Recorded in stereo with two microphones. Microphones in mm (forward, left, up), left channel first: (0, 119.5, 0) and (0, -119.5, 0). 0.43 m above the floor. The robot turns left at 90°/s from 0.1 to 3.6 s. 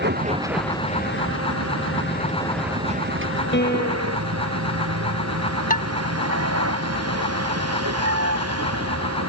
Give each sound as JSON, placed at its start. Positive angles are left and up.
{"t": 0.0, "sound": "a vehicle", "azimuth_deg": -135}
{"t": 3.5, "sound": "a piano", "side_deg": 50}
{"t": 5.7, "sound": "dishes clattering", "side_deg": 35}